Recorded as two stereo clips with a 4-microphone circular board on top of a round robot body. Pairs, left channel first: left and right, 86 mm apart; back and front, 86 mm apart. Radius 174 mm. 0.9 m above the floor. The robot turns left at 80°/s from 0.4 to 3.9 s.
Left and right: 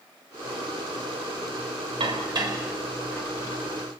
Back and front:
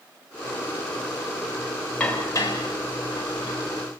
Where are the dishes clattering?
100° right, 4 m; by 3.6 s 135° left, 4 m.